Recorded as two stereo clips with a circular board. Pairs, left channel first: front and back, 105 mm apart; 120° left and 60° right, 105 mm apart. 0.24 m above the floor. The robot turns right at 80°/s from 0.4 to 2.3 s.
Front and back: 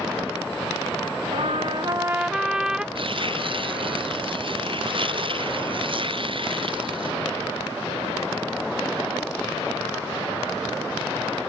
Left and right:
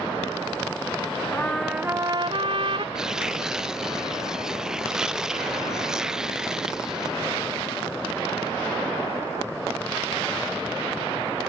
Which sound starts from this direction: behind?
A trumpet, at 1.3 s.